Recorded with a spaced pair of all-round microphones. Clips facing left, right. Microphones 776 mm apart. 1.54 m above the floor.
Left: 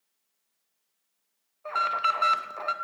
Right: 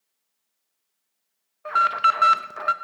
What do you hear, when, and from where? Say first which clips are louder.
1.6 s an alarm: right 5 dB; 55° right (ahead or behind), 0.6 m